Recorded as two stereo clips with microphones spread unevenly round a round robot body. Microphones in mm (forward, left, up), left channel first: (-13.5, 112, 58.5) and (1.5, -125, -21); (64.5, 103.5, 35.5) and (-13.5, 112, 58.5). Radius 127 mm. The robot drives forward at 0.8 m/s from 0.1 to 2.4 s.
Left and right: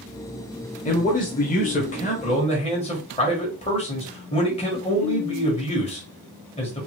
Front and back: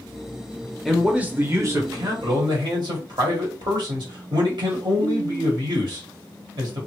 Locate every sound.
0.8 s a man speaking: 35° left, 1.0 m; by 6.9 s 165° left, 1.3 m